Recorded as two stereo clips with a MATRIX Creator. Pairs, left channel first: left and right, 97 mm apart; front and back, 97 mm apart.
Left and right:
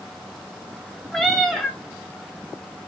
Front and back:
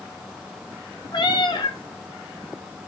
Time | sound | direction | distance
1.1 | a cat meowing | 5° left | 0.5 m